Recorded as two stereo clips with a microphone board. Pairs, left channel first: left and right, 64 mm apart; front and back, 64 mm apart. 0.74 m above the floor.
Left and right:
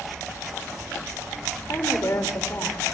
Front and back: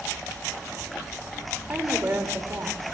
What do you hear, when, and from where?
1.7 s a woman speaking: 130° left, 3 m; by 2.8 s 140° left, 3 m